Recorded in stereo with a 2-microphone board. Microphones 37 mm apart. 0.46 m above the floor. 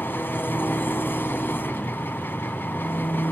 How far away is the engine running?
About 2 m.